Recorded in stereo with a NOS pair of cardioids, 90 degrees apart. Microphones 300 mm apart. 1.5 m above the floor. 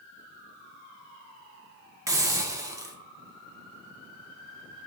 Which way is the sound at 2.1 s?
10° right.